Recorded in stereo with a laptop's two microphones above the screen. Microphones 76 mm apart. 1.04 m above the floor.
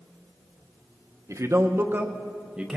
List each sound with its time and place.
1.3 s a man speaking: 45° right (ahead or behind), 0.8 m; by 2.8 s 5° right (ahead or behind), 0.9 m